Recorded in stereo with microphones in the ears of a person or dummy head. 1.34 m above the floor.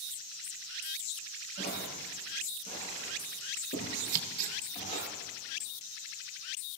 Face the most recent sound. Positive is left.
turn(degrees=-50)  # may be behind; listen again after turning